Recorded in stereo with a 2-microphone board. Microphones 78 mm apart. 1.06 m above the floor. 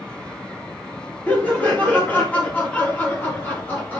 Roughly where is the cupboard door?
I don't hear a cupboard door.